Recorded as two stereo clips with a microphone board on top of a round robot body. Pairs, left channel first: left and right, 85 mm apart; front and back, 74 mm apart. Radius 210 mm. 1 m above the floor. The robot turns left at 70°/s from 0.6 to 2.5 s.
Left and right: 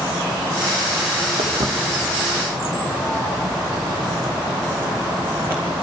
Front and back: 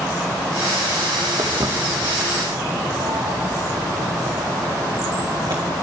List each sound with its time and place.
1.4 s footsteps: 125° right, 2 m; by 5.7 s 150° right, 4.5 m